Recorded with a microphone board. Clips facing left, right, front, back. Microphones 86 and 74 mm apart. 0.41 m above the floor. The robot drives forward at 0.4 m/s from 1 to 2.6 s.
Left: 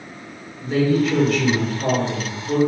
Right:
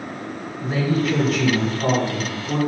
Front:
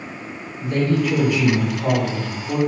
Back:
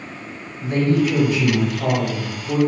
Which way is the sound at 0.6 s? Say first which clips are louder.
Left 3 dB, back 2 dB; 140° right.